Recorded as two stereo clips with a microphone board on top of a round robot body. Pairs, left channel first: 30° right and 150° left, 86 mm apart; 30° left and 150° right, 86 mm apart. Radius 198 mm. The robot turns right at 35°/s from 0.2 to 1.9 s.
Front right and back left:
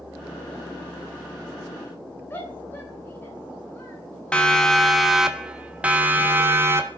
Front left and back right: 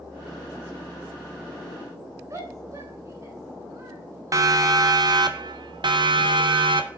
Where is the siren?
105° right, 2.5 m; by 6.9 s 150° right, 3.5 m.